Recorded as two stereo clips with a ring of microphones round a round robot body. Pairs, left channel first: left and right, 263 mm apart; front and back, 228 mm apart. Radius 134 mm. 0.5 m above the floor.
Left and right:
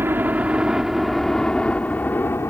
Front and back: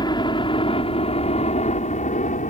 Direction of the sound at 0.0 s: 25° right.